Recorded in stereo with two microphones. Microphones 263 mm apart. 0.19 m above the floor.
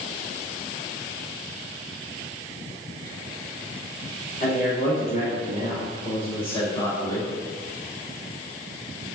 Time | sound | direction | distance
4.4 | a man speaking | 40° left (ahead or behind) | 1.4 m